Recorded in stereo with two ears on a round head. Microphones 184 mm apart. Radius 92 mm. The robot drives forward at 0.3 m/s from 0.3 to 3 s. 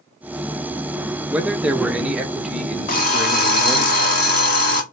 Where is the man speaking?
5° right (ahead or behind), 0.6 m.